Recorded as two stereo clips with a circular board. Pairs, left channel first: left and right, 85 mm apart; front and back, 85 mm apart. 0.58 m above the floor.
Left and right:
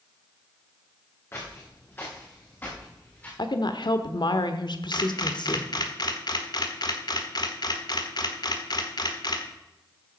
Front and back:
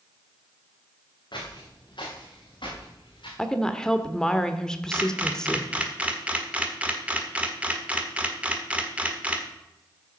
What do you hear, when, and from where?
1.3 s footsteps: 25° left, 4 m; by 3.3 s 20° left, 5.5 m
3.4 s a woman speaking: 80° left, 1.2 m
4.9 s a camera shutter: 110° left, 1.4 m